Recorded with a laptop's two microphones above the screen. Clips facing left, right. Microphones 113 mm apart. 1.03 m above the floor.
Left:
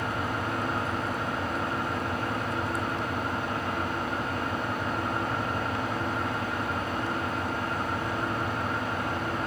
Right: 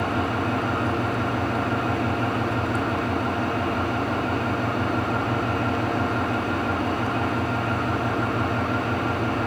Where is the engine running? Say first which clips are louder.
Right 6 dB; 80° right, 3 m.